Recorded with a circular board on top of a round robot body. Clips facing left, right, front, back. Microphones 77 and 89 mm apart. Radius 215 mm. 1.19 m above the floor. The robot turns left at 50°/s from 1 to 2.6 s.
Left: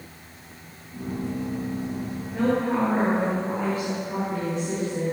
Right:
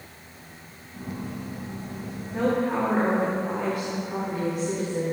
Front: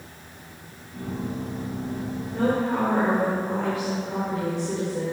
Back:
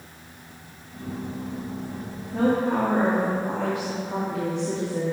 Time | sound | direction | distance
2.3 | a woman speaking | 160° right | 3.5 m